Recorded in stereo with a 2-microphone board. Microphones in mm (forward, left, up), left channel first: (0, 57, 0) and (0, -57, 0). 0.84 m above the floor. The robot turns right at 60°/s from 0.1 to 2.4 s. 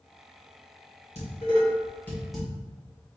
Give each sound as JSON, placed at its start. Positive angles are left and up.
{"t": 1.1, "sound": "dishes clattering", "side_deg": 70, "distance_m": 2.0}